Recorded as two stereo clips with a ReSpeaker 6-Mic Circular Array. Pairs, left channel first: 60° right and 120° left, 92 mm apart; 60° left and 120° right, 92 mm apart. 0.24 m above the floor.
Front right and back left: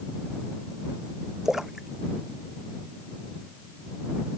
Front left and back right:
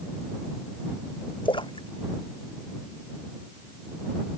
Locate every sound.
1.4 s a splash: 35° left